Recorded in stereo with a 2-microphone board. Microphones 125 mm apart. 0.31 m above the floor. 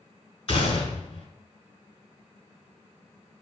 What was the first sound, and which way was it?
A gunshot, 50° left (ahead or behind).